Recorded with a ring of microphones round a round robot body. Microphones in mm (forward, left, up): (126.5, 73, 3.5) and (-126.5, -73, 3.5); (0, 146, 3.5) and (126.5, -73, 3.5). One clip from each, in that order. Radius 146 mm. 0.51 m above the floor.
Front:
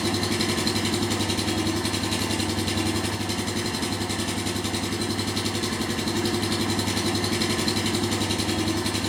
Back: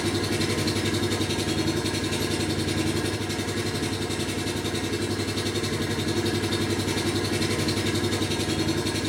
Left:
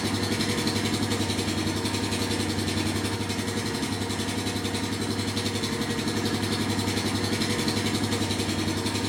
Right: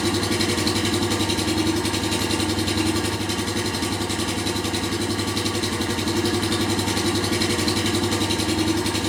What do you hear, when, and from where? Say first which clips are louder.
0.0 s an engine running: front 1 dB, right 5 dB; 5° right, 3 m